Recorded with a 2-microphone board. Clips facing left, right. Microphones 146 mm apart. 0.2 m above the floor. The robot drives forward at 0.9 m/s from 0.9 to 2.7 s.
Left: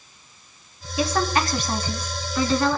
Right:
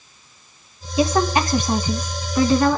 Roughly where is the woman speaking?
Right.